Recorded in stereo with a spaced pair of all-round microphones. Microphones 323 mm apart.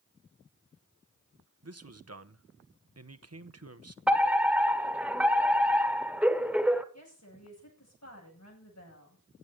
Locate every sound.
1.6 s a man speaking: 50° right (ahead or behind), 0.9 m
4.1 s a fire alarm: 5° right (ahead or behind), 1.2 m
6.9 s a woman speaking: 55° left (ahead or behind), 9 m